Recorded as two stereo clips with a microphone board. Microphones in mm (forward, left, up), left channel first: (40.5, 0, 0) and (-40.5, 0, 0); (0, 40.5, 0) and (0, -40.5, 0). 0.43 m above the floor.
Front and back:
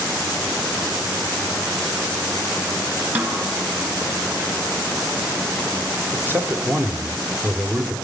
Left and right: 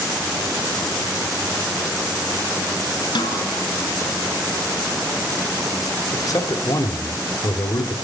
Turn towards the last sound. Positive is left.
turn(degrees=125)